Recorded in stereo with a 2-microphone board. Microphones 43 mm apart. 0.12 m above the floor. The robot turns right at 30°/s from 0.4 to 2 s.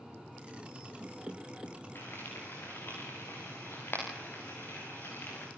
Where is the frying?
60° left (ahead or behind), 9.5 m; by 5.5 s 65° left (ahead or behind), 9.5 m.